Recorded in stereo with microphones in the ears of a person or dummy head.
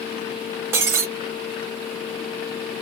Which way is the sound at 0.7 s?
15° right (ahead or behind).